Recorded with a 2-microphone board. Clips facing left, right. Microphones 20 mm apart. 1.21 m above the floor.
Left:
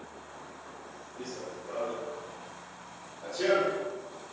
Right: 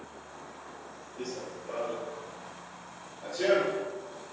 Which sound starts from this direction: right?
Running footsteps, at 1.2 s.